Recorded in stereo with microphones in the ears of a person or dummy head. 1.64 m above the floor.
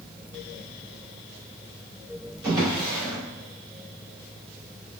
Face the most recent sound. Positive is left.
turn(degrees=-15)  # may be behind; listen again after turning